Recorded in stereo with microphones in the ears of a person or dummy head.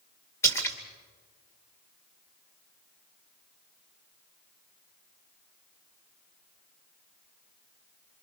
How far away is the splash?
About 2 m.